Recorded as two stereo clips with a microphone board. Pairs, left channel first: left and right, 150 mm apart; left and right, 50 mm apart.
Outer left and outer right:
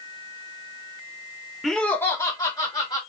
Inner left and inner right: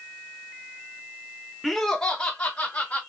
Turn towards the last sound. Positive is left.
turn(degrees=35)  # may be behind; listen again after turning